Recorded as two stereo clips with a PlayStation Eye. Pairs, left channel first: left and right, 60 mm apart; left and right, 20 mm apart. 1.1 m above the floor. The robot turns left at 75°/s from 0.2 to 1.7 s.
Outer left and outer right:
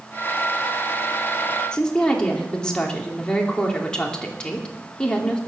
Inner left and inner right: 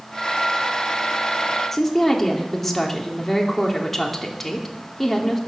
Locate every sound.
1.7 s a woman speaking: 15° left (ahead or behind), 2.5 m